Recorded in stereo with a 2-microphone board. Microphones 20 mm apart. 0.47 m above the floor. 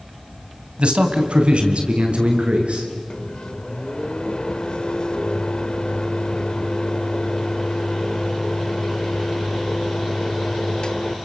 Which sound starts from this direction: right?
A man speaking, at 0.8 s.